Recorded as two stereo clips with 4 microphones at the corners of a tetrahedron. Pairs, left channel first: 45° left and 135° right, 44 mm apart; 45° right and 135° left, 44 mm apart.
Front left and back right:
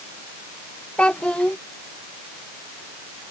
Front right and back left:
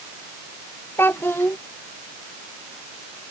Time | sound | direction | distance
1.0 | a child speaking | 20° right | ?